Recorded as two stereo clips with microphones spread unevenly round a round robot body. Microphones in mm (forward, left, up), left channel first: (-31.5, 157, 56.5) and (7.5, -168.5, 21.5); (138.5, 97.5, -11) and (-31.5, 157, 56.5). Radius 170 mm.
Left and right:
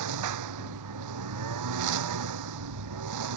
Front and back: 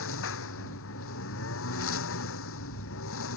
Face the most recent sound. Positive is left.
turn(degrees=-45)